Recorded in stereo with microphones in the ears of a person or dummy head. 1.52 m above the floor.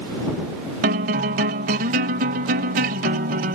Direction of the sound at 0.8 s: 35° right (ahead or behind).